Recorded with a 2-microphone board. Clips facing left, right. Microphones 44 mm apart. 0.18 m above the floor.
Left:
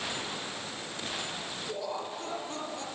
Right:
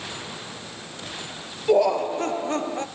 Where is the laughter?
70° right (ahead or behind), 3 m; by 2.9 s 45° right (ahead or behind), 2.5 m.